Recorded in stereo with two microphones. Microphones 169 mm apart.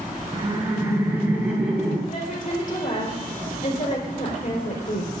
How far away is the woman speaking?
About 4 m.